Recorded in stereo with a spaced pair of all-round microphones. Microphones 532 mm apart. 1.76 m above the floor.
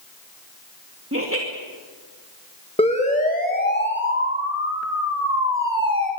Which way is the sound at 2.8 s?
10° left (ahead or behind).